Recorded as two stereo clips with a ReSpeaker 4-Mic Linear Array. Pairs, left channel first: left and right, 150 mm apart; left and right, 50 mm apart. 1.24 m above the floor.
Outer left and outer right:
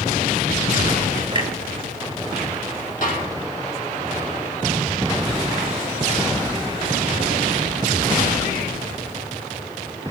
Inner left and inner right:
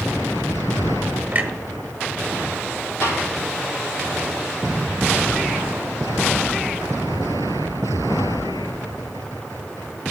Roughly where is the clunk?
Right.